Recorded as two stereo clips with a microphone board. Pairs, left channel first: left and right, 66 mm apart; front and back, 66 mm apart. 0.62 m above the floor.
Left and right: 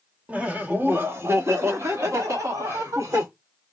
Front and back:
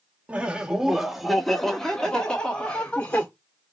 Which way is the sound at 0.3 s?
135° right.